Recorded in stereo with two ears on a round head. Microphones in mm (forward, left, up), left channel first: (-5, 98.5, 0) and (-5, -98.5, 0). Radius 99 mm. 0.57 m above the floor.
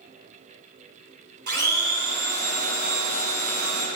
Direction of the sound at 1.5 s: 45° right (ahead or behind).